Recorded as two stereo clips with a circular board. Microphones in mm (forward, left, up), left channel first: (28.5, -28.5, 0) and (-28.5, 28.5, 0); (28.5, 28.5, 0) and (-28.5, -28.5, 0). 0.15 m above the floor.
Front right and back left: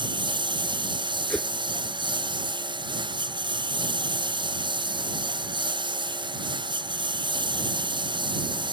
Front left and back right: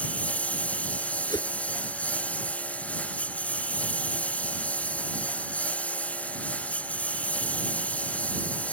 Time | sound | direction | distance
0.0 | a lawn mower | 120° left | ?
1.3 | a whoosh | 30° left | ?